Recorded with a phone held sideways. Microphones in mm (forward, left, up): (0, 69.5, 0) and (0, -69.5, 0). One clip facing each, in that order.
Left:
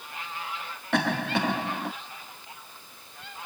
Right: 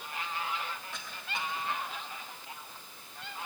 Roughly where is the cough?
Left.